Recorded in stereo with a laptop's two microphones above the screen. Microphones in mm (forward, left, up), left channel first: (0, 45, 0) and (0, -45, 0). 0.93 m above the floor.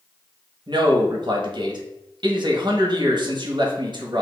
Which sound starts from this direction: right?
A man speaking, at 0.7 s.